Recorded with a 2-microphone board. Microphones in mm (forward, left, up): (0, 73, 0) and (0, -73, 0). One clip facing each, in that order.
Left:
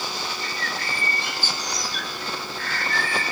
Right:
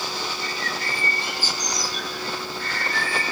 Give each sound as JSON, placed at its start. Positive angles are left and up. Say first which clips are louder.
{"t": 0.4, "sound": "a bird", "louder": "right 1 dB", "side_deg": 65, "distance_m": 1.1}